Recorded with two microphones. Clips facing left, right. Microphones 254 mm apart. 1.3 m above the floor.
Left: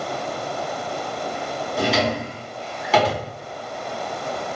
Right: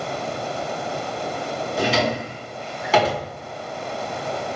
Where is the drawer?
Centre (ahead or behind), 1.1 m.